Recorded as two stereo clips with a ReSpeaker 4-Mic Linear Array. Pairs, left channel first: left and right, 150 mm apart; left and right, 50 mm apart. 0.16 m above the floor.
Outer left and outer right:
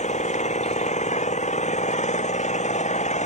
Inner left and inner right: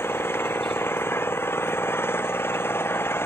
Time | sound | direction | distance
0.0 | an engine running | 55° left (ahead or behind) | ?